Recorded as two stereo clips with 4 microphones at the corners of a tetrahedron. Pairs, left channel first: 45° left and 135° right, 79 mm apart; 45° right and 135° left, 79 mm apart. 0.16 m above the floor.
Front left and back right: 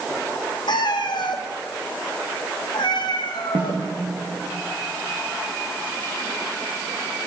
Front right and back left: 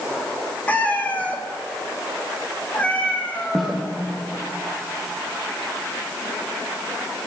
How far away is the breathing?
I don't hear breathing.